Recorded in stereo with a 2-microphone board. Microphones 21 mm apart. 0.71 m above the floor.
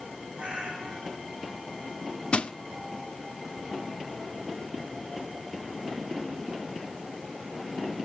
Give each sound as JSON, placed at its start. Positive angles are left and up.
{"t": 0.4, "sound": "a cat meowing", "side_deg": -55, "distance_m": 3.5}
{"t": 2.3, "sound": "crushing", "side_deg": 65, "distance_m": 0.7}